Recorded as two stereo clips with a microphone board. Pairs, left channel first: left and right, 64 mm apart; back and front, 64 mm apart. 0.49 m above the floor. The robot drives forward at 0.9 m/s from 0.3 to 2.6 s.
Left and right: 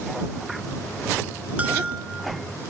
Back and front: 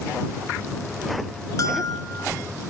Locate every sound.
1.6 s a bell: 155° right, 1.0 m; by 2.4 s 165° right, 1.7 m